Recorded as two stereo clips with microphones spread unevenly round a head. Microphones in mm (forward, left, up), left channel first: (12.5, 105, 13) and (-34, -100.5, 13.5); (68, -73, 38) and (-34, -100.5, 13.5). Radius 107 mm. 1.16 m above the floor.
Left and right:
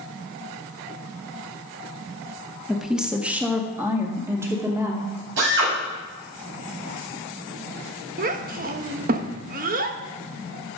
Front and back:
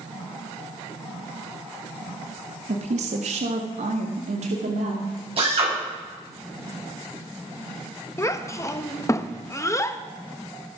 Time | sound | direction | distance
2.7 | a woman speaking | 170° left | 1.2 m
5.4 | a drill | 135° right | 8.5 m
8.2 | a child speaking | 50° right | 1.3 m